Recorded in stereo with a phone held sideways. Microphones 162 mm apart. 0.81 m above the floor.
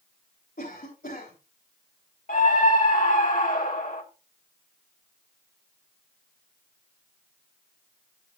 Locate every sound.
0.6 s a cough: 75° left (ahead or behind), 4 m
2.3 s a scream: 60° left (ahead or behind), 2.0 m